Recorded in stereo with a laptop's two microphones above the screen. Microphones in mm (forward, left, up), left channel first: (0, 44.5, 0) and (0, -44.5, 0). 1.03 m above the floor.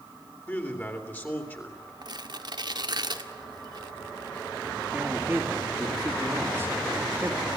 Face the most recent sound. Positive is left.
turn(degrees=-25)  # may be behind; listen again after turning